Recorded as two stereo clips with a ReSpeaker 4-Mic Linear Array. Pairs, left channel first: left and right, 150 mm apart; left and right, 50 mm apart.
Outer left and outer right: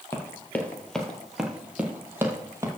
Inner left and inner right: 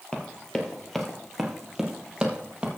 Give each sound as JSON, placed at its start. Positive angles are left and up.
{"t": 0.1, "sound": "running footsteps", "side_deg": 20, "distance_m": 1.7}